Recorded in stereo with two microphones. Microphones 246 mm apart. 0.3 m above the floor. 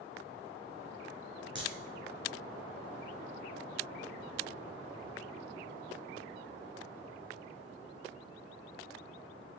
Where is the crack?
50° right (ahead or behind), 2.5 m.